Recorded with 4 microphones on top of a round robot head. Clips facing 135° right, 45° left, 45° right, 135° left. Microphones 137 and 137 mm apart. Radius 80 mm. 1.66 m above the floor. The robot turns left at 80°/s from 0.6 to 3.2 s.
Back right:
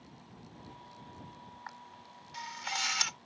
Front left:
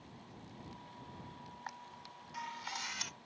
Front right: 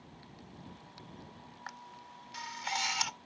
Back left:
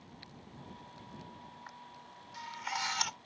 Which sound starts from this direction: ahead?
A camera shutter, at 1.7 s.